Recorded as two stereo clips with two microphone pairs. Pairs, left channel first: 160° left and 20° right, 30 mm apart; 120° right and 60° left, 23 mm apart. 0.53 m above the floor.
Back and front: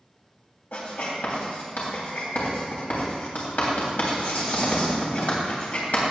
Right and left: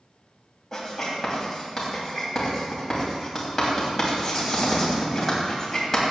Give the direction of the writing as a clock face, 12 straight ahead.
7 o'clock.